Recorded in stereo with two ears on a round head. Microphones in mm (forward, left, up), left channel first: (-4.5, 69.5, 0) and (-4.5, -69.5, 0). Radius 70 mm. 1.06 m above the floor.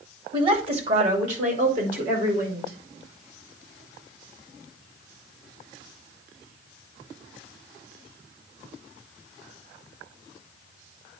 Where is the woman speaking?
35° right (ahead or behind), 2 m; by 2.8 s 60° right (ahead or behind), 5 m.